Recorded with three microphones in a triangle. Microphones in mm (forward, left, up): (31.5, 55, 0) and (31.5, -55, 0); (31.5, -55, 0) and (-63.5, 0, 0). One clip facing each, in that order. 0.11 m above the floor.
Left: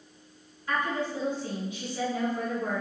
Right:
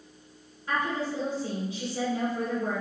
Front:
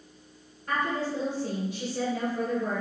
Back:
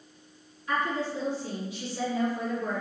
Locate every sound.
0.7 s a woman speaking: 30° right, 1.9 m